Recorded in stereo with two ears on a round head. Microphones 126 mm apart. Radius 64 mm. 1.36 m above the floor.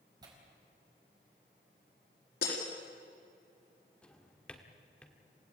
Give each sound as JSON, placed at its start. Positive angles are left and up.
{"t": 0.2, "sound": "tearing paper", "side_deg": -30, "distance_m": 4.5}
{"t": 2.4, "sound": "breaking glass", "side_deg": 80, "distance_m": 7.0}
{"t": 4.0, "sound": "a drawer", "side_deg": 5, "distance_m": 1.7}